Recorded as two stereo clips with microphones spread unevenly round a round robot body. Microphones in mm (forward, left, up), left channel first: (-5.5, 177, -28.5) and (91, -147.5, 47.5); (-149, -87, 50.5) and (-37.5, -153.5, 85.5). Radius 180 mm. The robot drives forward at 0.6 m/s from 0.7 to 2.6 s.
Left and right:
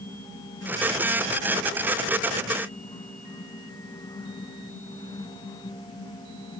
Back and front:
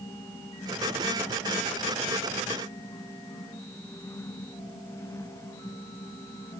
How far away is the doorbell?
I don't hear a doorbell.